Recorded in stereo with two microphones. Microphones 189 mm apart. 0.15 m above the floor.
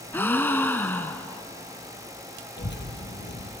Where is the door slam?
No door slam in this recording.